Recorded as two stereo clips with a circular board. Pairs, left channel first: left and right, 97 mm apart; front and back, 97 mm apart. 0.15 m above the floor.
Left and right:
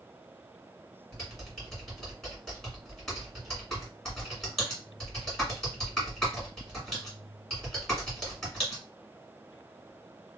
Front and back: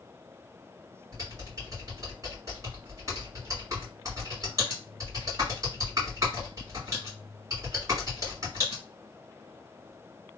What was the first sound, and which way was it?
Typing on a keyboard, 170° left.